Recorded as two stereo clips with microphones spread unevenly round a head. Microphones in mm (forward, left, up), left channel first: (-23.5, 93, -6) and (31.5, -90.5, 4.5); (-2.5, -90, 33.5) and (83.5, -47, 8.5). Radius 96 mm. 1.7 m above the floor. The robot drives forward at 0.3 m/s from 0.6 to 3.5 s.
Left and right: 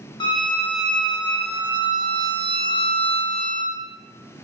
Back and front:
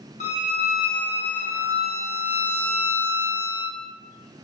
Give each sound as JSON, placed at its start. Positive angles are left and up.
{"t": 0.2, "sound": "a violin", "azimuth_deg": 175, "distance_m": 0.5}